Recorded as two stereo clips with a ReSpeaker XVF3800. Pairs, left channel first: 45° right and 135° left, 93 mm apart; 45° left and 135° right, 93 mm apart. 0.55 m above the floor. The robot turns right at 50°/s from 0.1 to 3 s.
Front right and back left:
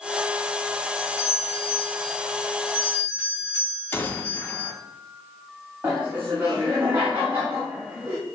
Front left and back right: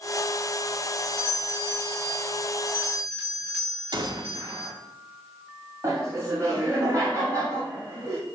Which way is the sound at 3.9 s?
110° right.